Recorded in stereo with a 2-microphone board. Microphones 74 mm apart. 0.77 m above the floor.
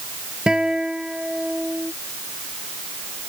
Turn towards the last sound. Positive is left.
turn(degrees=-10)  # may be behind; listen again after turning